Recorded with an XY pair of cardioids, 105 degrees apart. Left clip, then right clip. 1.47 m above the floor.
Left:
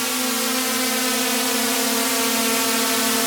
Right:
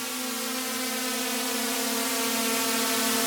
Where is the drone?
60° left; by 3.3 s 35° left.